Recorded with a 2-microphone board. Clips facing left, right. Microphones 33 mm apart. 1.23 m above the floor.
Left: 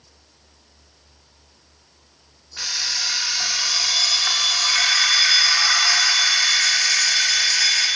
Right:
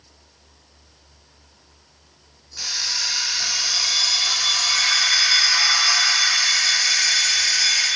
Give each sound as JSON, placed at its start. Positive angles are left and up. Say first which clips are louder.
{"t": 2.6, "sound": "an alarm clock", "louder": "left 1 dB", "side_deg": 35, "distance_m": 0.9}